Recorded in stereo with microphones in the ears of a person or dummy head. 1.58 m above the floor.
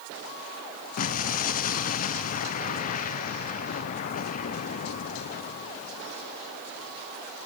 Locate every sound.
1.0 s an explosion: 50° left (ahead or behind), 0.5 m